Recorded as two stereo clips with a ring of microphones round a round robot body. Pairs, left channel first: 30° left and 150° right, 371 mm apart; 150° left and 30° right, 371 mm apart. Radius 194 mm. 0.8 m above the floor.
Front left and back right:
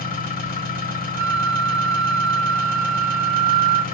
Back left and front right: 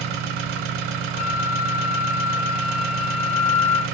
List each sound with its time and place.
0.0 s an engine running: 40° right, 0.8 m
1.2 s a flute: 140° right, 1.2 m